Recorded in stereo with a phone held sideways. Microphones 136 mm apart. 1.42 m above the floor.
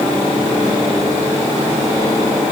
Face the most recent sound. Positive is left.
No sound to turn to.